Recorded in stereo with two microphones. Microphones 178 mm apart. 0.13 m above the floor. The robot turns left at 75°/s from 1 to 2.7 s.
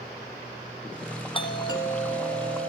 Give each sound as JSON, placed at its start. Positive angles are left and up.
{"t": 1.4, "sound": "a doorbell", "side_deg": 30, "distance_m": 1.7}